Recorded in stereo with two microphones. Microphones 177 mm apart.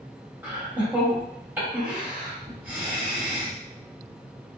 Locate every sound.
0.4 s laughter: 10° right (ahead or behind), 1.6 m